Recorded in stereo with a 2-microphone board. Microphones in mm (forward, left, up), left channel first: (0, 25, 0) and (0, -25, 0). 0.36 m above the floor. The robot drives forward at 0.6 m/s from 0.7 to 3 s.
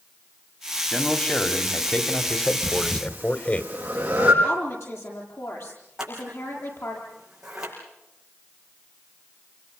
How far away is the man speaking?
About 3 m.